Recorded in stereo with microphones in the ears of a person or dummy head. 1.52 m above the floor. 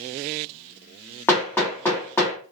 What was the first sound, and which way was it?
Hammering, 10° left (ahead or behind).